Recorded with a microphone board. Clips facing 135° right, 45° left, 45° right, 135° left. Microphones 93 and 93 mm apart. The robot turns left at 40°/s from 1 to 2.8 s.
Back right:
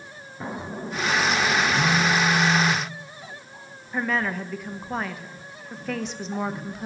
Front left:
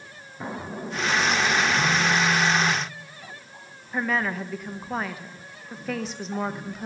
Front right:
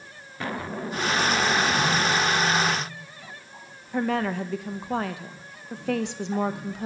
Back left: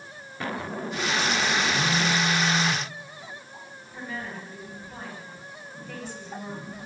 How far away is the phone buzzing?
About 1.8 m.